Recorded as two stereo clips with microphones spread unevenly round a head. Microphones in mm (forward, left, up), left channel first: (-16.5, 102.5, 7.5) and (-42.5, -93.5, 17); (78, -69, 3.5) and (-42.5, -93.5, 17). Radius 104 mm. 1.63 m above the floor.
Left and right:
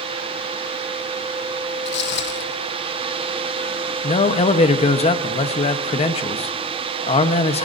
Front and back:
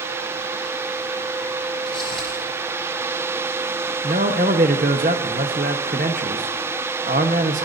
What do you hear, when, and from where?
1.9 s footsteps: 100° left, 3 m
4.0 s a man speaking: 145° left, 1.2 m